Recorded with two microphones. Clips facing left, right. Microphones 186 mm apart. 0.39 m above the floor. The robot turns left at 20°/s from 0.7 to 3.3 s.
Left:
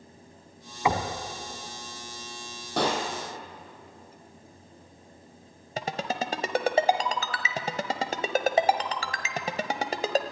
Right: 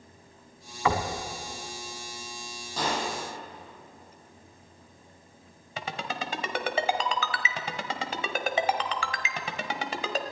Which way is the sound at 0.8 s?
15° left (ahead or behind).